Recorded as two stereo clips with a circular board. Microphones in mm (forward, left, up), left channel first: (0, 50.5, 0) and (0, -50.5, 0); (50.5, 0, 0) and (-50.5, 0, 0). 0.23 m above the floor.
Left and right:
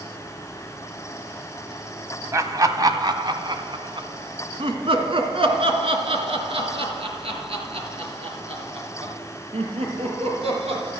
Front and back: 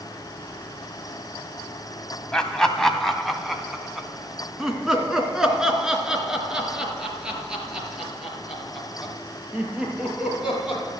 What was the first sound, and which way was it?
Laughter, 75° right.